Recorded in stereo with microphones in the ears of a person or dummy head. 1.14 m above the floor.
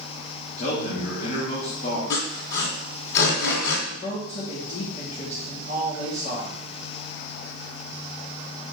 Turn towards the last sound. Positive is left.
turn(degrees=40)  # may be behind; listen again after turning